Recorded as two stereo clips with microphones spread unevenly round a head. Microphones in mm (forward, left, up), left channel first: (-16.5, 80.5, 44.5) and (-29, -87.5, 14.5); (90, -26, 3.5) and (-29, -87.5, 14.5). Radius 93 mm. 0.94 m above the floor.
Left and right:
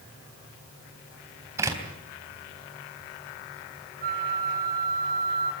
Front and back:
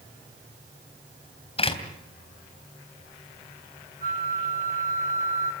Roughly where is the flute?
Behind right.